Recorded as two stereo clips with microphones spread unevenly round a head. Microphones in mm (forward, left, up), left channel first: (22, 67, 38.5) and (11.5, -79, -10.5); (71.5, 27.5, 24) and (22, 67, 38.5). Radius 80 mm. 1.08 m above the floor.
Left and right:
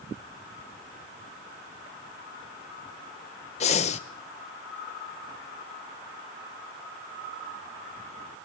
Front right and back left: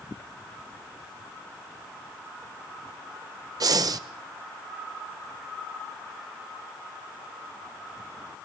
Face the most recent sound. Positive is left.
turn(degrees=140)